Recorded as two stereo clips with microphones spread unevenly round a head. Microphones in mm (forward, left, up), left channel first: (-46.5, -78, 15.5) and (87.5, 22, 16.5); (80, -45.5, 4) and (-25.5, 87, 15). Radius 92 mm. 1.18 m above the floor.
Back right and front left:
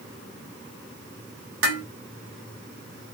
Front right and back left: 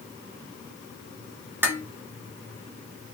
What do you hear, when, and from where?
1.6 s dishes clattering: 50° left, 1.1 m